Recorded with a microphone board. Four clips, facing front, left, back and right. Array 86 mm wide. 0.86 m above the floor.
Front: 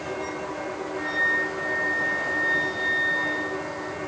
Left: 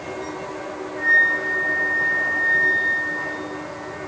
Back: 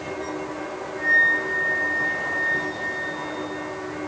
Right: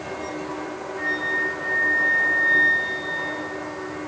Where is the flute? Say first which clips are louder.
Left 7 dB, back 6 dB; 35° right, 9 m.